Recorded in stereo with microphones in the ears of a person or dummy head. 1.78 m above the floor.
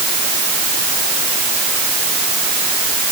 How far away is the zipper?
I don't hear a zipper.